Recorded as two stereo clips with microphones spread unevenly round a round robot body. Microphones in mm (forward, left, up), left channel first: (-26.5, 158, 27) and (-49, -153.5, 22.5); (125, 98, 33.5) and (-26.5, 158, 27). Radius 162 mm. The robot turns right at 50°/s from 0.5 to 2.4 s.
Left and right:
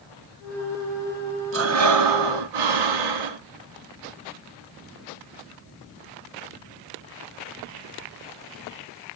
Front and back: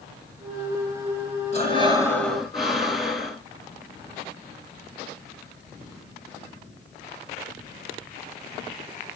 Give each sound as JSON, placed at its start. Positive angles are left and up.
{"t": 1.5, "sound": "breathing", "azimuth_deg": -140, "distance_m": 1.6}